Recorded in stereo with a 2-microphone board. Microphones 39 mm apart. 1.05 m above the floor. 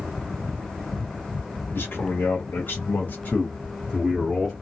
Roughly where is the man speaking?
Left.